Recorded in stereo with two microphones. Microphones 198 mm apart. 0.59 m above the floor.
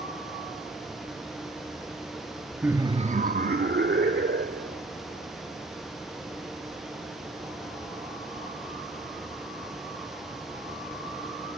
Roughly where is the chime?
I don't hear a chime.